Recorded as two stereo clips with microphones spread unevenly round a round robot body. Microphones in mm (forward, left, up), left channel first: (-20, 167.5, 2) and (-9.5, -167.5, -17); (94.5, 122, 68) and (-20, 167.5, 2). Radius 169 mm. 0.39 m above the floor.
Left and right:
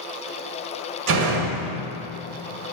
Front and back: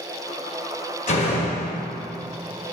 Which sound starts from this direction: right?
A door slam, at 1.1 s.